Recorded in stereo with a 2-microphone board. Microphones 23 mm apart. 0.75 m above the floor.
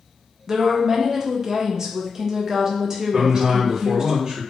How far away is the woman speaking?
About 0.5 m.